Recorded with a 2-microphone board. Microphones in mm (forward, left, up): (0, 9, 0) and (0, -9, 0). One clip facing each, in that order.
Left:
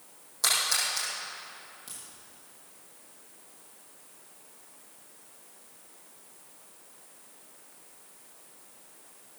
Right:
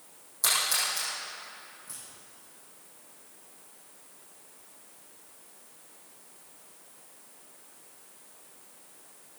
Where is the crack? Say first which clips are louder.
Left 2 dB; 70° left (ahead or behind), 7.5 m.